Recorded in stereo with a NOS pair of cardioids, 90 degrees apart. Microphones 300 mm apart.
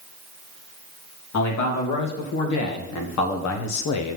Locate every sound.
1.3 s a man speaking: 65° left, 3 m